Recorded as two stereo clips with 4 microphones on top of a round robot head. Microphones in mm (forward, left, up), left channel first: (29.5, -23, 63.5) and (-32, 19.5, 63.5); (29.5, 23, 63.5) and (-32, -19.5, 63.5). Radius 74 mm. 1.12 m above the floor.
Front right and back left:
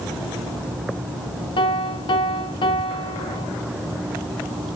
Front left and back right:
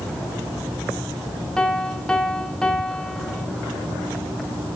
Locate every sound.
1.6 s a piano: 45° right, 1.2 m